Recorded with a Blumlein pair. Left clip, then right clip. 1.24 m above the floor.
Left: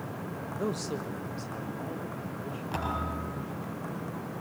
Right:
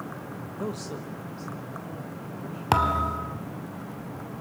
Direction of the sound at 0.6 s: 5° left.